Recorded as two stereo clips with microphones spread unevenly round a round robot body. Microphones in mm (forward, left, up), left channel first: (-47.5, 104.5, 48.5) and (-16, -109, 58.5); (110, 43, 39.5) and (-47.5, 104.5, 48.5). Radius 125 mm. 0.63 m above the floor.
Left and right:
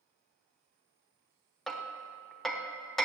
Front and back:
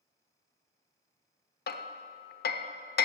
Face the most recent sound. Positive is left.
turn(degrees=10)